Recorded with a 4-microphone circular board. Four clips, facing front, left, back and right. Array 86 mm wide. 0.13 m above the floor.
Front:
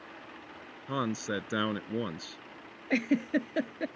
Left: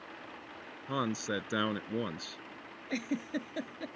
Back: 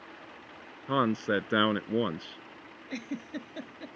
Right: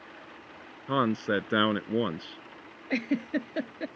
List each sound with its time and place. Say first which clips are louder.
0.9 s a man speaking: right 7 dB, back 5 dB; 135° right
2.9 s a giggle: right 6 dB, front 10 dB; 30° right